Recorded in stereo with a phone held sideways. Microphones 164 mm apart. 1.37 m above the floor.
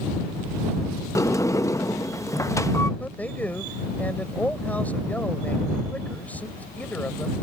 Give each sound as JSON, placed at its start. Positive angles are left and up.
{"t": 1.1, "sound": "a sliding door", "side_deg": 20}
{"t": 3.0, "sound": "a man speaking", "side_deg": 10}